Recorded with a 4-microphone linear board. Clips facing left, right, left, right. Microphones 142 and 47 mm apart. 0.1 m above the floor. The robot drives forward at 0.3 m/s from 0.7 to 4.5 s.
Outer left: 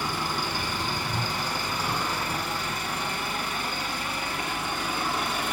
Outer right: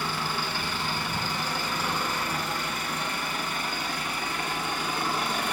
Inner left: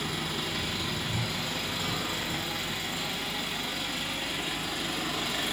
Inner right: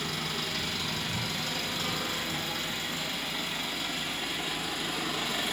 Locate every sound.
0.0 s an engine running: 15° left (ahead or behind), 1.6 m; by 5.5 s 10° left (ahead or behind), 2.5 m